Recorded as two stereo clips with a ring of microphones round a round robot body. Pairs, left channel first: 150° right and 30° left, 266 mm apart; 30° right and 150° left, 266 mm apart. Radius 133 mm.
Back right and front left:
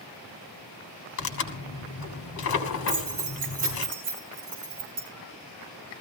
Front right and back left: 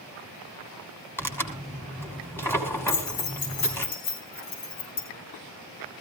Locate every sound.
1.2 s tearing paper: 110° right, 3 m
2.9 s keys jangling: 30° right, 6 m